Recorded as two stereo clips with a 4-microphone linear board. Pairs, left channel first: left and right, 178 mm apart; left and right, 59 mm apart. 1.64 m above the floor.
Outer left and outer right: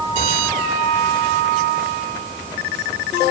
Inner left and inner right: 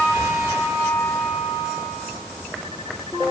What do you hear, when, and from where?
Only background noise.